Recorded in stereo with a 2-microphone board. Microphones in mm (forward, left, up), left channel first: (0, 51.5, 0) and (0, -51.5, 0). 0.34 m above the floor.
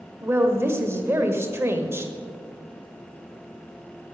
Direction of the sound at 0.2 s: 25° right (ahead or behind).